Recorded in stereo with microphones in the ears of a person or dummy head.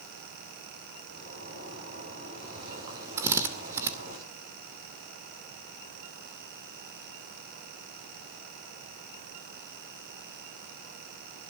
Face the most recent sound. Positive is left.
turn(degrees=-15)  # may be behind; listen again after turning